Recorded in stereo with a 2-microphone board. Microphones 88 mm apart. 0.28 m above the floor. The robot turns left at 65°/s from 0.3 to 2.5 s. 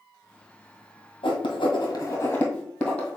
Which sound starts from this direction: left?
Writing, at 1.2 s.